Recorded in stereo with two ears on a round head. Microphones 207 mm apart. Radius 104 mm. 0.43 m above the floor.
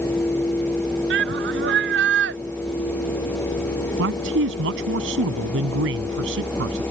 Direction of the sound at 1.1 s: 55° right (ahead or behind).